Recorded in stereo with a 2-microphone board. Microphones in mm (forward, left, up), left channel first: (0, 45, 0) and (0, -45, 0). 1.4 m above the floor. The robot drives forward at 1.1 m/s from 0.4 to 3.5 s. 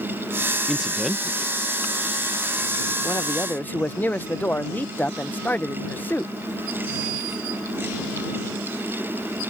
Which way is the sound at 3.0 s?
40° left (ahead or behind).